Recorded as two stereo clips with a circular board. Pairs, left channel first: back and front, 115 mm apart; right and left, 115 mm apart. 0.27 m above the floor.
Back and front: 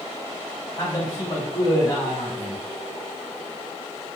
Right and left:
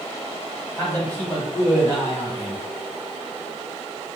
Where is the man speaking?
150° right, 1.5 m.